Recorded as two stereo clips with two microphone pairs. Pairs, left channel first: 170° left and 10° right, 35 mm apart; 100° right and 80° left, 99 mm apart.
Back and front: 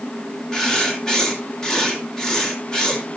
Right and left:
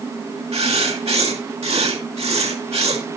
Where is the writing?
95° left, 2.5 m.